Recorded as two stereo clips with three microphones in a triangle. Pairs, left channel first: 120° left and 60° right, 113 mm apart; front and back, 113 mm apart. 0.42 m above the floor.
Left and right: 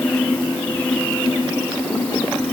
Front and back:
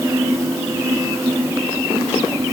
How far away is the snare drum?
I don't hear a snare drum.